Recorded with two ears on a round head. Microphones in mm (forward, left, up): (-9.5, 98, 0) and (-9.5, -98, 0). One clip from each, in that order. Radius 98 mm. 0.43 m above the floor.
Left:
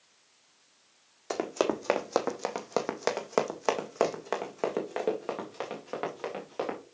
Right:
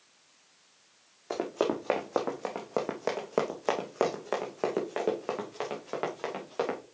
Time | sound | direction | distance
1.3 | running footsteps | 75° left (ahead or behind) | 2.0 m